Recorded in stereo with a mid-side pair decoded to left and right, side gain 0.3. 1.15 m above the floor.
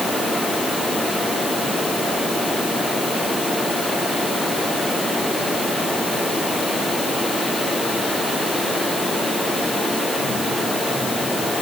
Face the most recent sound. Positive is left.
No sound to turn to.